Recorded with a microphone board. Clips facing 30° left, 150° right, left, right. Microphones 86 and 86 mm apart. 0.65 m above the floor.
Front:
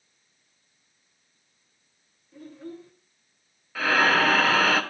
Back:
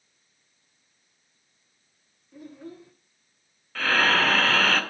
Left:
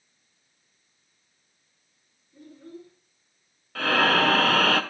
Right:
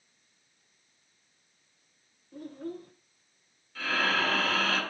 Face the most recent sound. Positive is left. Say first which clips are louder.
# front 1 dB, left 8 dB
turn(degrees=115)